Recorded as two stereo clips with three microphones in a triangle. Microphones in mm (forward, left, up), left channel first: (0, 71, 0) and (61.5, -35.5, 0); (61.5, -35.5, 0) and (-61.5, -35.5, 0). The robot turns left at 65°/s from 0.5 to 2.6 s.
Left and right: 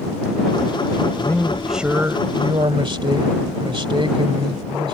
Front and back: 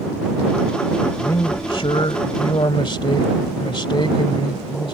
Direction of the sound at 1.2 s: 60° left.